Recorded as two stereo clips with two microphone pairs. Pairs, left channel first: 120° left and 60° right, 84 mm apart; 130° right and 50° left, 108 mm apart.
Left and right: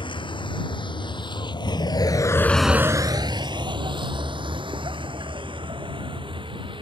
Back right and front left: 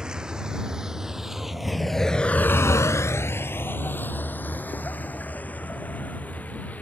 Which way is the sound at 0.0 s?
135° left.